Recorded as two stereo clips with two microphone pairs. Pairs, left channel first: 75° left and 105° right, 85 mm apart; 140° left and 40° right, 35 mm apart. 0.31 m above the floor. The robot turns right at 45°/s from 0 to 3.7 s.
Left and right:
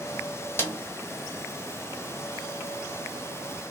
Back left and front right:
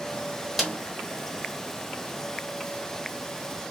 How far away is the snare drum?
About 1.1 m.